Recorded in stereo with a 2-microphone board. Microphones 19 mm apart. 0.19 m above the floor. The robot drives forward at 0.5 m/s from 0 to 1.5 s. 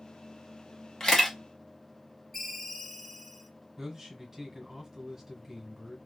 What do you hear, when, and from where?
1.0 s a camera shutter: 25° left (ahead or behind), 1.1 m
2.3 s a ringtone: 15° left (ahead or behind), 1.5 m
3.8 s a man speaking: 20° right (ahead or behind), 1.6 m